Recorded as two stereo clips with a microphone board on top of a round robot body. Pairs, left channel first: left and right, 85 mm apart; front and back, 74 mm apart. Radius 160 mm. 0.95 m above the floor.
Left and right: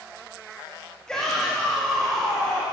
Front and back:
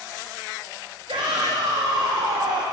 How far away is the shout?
About 1.5 m.